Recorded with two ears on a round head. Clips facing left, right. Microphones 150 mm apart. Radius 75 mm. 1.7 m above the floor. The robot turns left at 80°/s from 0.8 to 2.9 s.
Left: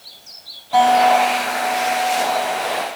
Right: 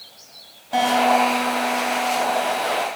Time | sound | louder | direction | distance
0.7 | a guitar | left 5 dB | 25° right | 2.5 m